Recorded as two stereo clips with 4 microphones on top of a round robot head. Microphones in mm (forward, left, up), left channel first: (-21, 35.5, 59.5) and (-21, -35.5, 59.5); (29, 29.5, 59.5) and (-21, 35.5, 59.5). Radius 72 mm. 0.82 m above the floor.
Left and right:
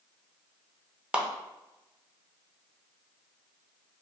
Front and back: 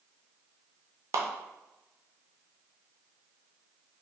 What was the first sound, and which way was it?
A clap, 165° right.